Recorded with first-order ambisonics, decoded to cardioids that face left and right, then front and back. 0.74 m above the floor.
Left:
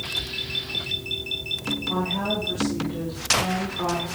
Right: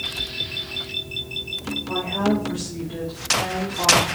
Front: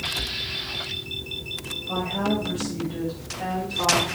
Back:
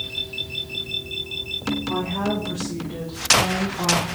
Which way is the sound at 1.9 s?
130° right.